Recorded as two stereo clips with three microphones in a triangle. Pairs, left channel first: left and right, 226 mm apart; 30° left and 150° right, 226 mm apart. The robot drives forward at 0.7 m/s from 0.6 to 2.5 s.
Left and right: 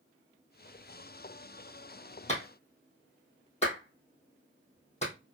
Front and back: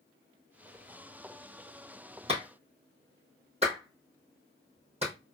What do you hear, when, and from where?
2.3 s a clap: 150° left, 3 m